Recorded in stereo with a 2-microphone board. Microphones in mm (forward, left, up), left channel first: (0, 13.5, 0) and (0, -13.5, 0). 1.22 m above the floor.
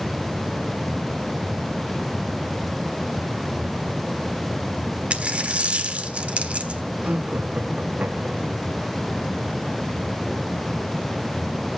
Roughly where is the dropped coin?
Right.